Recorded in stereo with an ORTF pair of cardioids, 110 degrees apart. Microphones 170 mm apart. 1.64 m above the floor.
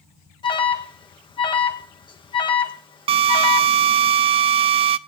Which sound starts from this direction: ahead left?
An alarm, at 0.4 s.